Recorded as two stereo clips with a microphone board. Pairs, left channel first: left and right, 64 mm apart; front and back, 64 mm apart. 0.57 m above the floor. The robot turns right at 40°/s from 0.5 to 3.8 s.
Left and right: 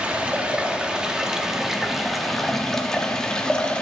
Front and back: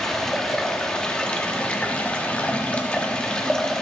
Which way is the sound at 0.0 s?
70° right.